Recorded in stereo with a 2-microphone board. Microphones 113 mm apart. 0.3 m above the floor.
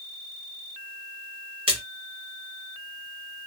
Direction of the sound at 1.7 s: 50° right (ahead or behind).